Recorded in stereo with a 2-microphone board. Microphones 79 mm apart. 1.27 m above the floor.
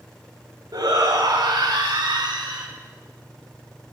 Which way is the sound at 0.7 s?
65° right (ahead or behind).